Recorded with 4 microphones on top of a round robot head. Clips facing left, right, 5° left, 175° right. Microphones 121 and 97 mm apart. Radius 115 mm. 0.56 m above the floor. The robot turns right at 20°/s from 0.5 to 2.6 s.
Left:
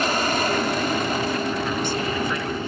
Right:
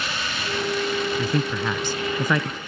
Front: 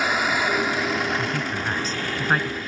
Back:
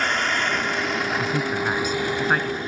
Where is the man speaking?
105° right; by 2.6 s 80° right.